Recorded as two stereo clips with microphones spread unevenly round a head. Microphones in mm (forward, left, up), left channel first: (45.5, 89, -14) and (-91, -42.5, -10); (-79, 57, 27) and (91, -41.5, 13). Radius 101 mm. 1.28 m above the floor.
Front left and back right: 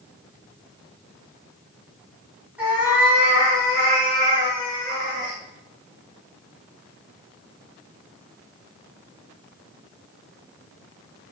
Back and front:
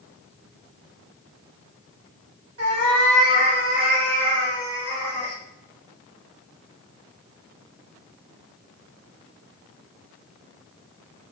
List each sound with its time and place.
2.6 s a cat meowing: 55° right, 3.5 m; by 5.4 s 65° right, 6 m